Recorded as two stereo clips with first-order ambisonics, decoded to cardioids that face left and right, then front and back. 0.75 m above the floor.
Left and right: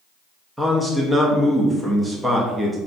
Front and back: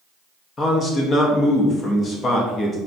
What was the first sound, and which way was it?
A man speaking, 15° right.